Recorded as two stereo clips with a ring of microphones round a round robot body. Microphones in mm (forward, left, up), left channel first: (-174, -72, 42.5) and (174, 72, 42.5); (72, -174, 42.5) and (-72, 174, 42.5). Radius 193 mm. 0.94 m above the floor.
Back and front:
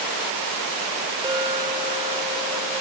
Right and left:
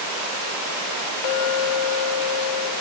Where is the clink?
55° right, 2.5 m.